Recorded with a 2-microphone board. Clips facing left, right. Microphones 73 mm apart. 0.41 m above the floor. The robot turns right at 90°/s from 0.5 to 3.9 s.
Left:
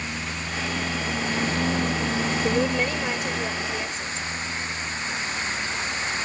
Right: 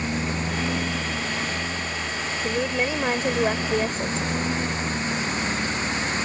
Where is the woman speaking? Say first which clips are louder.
Even; 155° left; by 4.2 s 70° right.